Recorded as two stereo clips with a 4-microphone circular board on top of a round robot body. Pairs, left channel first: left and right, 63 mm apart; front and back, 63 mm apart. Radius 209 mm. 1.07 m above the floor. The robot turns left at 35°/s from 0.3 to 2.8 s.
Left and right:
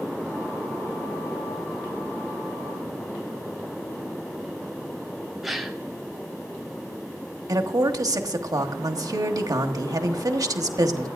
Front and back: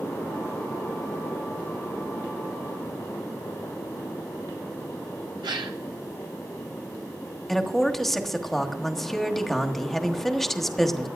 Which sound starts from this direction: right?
A woman speaking, at 7.5 s.